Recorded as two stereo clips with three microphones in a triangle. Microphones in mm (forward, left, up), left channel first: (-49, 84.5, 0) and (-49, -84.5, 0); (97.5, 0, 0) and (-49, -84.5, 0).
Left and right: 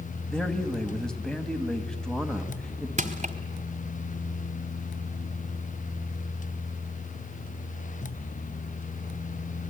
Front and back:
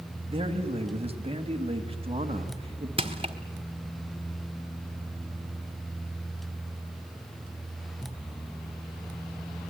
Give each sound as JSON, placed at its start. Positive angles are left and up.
{"t": 0.3, "sound": "a man speaking", "azimuth_deg": 175, "distance_m": 1.8}
{"t": 3.0, "sound": "crushing", "azimuth_deg": -105, "distance_m": 1.5}